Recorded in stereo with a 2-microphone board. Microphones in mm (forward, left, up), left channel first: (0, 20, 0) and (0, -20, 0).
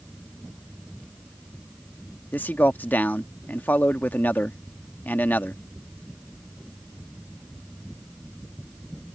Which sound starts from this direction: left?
A man speaking, at 2.3 s.